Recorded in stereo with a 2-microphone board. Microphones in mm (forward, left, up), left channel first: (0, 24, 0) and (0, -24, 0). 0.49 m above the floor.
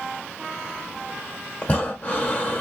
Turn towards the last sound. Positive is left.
turn(degrees=25)  # may be behind; listen again after turning